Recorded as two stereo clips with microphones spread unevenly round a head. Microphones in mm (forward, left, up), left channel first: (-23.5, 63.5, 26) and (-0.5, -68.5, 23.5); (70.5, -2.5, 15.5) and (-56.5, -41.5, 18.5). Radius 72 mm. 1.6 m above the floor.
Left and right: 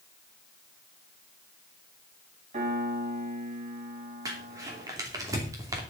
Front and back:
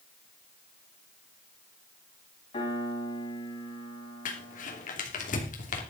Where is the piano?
35° right, 5 m.